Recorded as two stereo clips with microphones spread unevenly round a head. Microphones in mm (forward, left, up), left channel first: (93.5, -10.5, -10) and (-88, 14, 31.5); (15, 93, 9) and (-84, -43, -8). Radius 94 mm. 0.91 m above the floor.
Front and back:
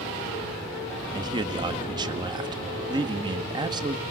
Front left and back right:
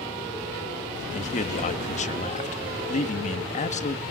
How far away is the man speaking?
About 1.7 m.